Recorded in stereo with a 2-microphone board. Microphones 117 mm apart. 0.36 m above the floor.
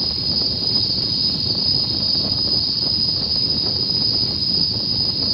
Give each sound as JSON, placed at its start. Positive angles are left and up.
{"t": 0.0, "sound": "an insect", "side_deg": 0}